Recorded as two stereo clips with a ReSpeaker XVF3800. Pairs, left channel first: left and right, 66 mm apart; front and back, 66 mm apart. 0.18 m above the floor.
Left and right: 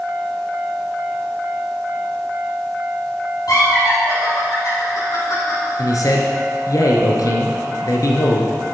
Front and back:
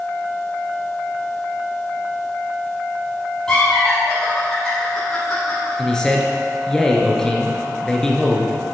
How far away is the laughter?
About 5.5 m.